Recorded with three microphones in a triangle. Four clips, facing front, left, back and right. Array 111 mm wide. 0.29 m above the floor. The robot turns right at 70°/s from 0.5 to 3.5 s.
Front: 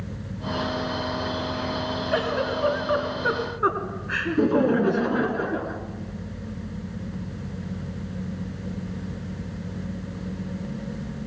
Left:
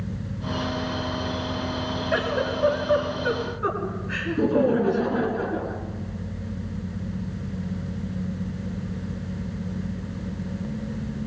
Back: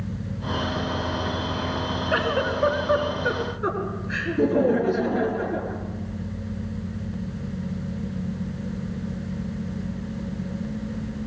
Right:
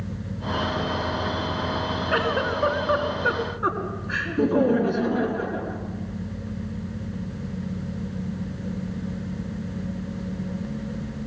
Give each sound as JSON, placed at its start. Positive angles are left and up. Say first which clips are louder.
{"t": 2.1, "sound": "a giggle", "louder": "right 1 dB, back 1 dB", "azimuth_deg": -120, "distance_m": 4.0}
{"t": 4.2, "sound": "laughter", "louder": "even, even", "azimuth_deg": 0, "distance_m": 3.5}